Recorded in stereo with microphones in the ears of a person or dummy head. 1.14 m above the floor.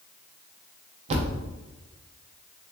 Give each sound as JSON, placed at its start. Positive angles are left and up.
{"t": 1.1, "sound": "a thud", "side_deg": -40, "distance_m": 0.6}